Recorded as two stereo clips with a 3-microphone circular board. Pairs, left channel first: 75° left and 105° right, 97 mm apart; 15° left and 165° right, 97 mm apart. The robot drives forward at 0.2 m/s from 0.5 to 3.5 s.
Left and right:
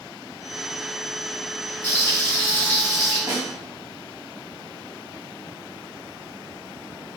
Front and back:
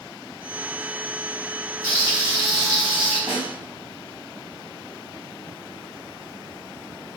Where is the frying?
140° left, 2.0 m; by 3.2 s 145° left, 2 m.